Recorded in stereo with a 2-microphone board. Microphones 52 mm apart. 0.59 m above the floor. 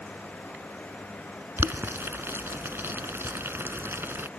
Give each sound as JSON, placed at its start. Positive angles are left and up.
{"t": 1.6, "sound": "boiling", "side_deg": -50}